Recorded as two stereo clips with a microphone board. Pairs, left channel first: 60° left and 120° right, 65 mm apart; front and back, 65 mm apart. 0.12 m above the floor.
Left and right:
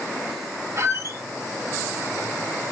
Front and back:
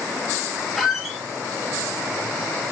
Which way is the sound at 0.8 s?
95° right.